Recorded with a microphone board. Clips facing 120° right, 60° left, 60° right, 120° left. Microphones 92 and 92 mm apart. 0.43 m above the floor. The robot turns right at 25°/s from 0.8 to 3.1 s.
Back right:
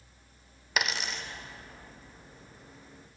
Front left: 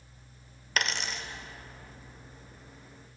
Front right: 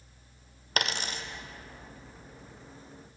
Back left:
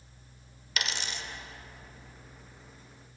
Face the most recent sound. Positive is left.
turn(degrees=20)